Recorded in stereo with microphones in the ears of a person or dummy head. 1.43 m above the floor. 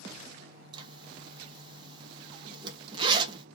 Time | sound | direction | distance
0.7 | a zipper | 30° right (ahead or behind) | 0.5 m